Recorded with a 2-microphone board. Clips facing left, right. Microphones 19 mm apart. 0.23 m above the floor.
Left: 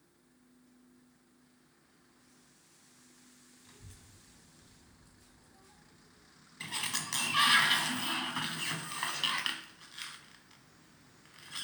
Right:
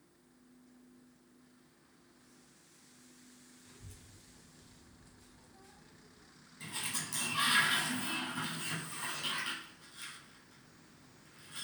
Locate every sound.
3.6 s a child speaking: 30° left (ahead or behind), 1.2 m; by 6.3 s 45° right (ahead or behind), 1.2 m
6.6 s a sliding door: 55° left (ahead or behind), 0.7 m